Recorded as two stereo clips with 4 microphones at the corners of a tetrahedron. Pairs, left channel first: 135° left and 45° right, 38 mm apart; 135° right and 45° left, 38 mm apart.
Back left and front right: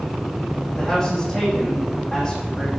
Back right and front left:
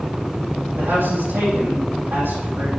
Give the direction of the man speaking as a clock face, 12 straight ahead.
10 o'clock.